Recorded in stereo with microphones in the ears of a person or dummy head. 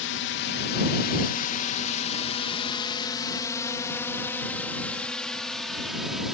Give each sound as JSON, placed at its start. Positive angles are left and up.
{"t": 0.0, "sound": "a drone", "side_deg": 60}